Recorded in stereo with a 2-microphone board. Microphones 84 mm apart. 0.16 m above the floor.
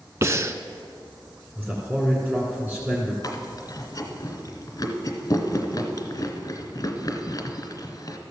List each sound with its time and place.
0.2 s breathing: 35° right (ahead or behind), 0.5 m
1.6 s a man speaking: 15° right (ahead or behind), 2 m
3.2 s chewing: 45° left (ahead or behind), 1.2 m